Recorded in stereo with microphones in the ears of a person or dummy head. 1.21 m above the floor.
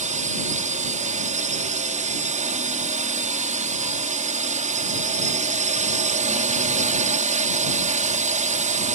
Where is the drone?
35° right (ahead or behind).